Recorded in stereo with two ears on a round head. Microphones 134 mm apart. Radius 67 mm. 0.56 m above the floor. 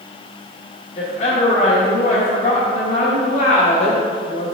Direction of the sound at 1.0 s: 45° left (ahead or behind).